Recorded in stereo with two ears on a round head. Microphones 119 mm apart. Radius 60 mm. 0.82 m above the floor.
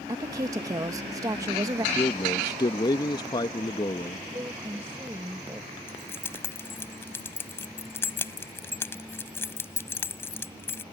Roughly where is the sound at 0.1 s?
Right.